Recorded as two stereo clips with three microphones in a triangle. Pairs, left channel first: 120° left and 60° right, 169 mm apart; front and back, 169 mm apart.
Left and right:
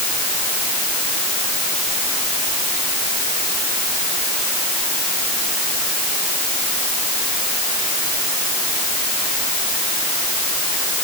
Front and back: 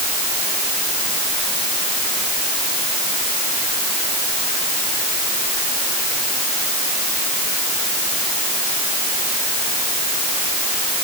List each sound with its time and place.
Only background noise.